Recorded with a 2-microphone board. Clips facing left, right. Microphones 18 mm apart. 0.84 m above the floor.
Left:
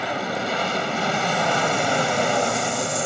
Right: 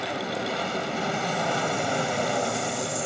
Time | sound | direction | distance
0.0 | an aircraft | 25° left (ahead or behind) | ?